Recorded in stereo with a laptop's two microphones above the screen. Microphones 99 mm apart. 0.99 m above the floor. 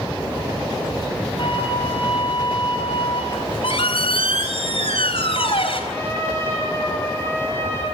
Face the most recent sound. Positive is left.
turn(degrees=25)  # may be behind; listen again after turning